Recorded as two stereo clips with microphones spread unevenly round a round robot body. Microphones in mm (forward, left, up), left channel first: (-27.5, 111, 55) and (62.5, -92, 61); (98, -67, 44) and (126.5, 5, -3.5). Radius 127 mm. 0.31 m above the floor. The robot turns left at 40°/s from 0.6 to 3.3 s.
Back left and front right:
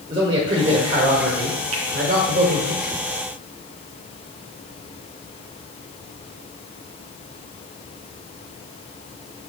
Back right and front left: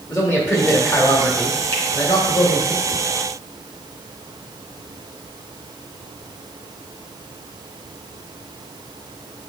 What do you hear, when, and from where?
0.1 s a man speaking: 5° right, 1.7 m; by 2.7 s 90° right, 1.7 m
1.7 s a finger snap: 50° right, 3 m